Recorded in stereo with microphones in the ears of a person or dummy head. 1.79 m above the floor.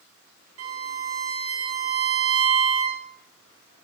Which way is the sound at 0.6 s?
75° right (ahead or behind).